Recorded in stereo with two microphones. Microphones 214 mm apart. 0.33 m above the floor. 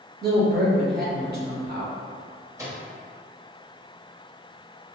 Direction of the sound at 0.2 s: 50° right (ahead or behind).